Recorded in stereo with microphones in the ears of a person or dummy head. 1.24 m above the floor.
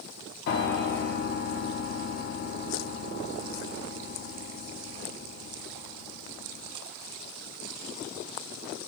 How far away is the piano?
About 0.5 m.